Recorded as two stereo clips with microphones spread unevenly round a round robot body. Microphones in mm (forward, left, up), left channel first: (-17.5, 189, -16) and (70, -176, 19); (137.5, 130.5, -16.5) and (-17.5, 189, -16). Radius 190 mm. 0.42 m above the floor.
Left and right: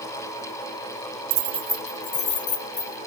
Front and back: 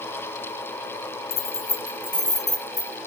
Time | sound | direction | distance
1.3 | keys jangling | 40° right | 0.9 m